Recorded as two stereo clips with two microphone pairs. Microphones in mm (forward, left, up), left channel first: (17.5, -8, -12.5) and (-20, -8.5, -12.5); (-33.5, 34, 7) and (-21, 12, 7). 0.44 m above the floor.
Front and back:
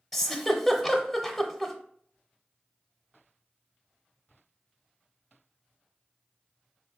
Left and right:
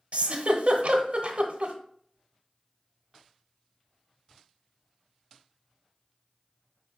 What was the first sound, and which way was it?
A giggle, 85° right.